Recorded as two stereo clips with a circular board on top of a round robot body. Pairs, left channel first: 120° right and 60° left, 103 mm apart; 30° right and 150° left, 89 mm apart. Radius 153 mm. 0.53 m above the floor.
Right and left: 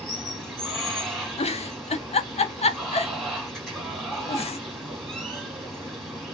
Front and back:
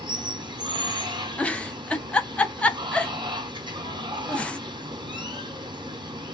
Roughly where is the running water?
Behind left.